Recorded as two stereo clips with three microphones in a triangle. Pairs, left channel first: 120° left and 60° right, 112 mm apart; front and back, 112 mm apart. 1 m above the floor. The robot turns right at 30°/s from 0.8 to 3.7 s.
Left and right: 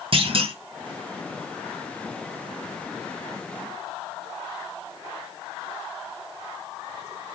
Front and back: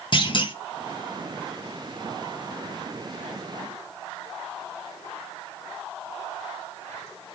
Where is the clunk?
35° right, 1.4 m.